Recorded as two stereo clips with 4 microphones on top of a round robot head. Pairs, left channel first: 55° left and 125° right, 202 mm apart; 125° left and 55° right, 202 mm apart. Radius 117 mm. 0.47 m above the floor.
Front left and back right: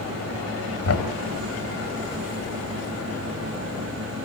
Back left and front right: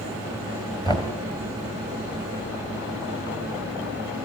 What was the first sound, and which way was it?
Knocking, 55° left.